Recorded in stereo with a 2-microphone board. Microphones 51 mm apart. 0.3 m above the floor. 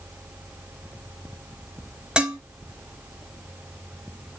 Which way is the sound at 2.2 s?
20° right (ahead or behind).